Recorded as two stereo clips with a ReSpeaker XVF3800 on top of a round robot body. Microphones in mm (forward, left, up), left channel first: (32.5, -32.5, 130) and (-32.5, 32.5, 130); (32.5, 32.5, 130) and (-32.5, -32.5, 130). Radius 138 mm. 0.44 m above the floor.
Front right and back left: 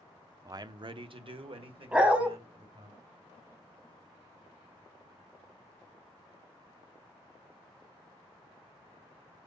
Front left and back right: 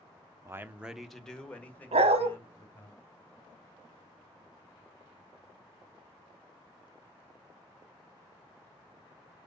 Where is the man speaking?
175° left, 1.0 m; by 2.9 s 110° left, 3 m.